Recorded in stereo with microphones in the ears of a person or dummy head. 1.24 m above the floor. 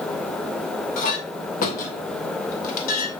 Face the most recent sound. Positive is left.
turn(degrees=45)  # may be behind; listen again after turning